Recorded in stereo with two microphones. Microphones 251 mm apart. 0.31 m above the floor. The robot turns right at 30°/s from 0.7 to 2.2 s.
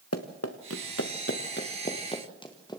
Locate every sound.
0.1 s running footsteps: 80° left, 1.8 m; by 2.8 s 15° left (ahead or behind), 2.5 m